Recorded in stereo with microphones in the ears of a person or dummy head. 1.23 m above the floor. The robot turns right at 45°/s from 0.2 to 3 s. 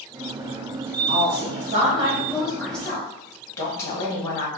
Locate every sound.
1.1 s a woman speaking: 60° right, 1.2 m; by 4.5 s 25° left, 1.2 m